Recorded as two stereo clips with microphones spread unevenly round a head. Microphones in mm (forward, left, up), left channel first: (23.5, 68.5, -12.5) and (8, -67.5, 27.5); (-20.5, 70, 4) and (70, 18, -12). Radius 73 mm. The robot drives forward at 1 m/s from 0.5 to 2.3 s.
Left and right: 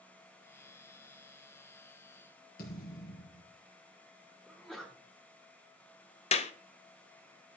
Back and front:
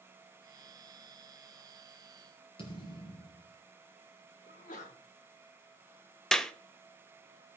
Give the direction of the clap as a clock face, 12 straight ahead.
10 o'clock.